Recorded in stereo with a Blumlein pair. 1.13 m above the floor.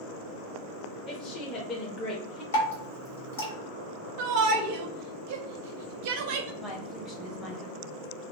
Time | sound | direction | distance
1.1 | a woman speaking | 25° left | 0.8 m
2.5 | dripping | 65° left | 1.1 m
4.2 | a shout | 45° right | 0.7 m
6.6 | a woman speaking | 25° left | 0.9 m